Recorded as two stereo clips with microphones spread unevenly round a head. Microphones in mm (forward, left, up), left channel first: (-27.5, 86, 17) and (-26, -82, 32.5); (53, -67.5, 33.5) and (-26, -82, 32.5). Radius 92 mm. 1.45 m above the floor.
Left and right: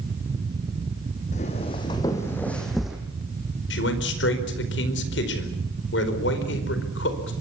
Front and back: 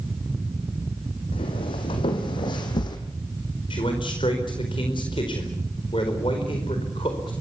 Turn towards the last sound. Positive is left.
turn(degrees=65)